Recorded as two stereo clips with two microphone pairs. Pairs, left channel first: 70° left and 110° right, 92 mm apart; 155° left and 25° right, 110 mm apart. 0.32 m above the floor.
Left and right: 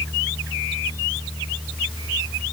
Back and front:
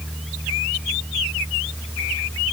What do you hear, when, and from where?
Only background noise.